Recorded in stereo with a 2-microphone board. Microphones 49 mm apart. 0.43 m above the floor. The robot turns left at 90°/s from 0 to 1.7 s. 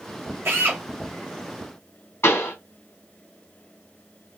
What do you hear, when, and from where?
0.5 s a drill: 110° right, 2 m; by 0.8 s 145° right, 2 m
2.2 s a pop: 55° left (ahead or behind), 4 m